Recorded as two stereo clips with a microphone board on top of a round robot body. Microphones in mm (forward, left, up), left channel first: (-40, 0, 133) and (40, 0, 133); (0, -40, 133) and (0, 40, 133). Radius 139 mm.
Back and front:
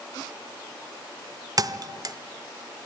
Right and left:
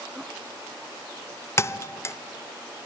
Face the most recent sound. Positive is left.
turn(degrees=-35)